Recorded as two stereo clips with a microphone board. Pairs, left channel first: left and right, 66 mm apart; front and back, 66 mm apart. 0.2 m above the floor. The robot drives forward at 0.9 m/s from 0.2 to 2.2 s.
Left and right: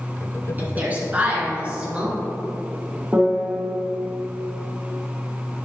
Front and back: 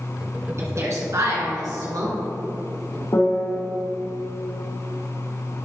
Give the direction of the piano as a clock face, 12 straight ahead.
1 o'clock.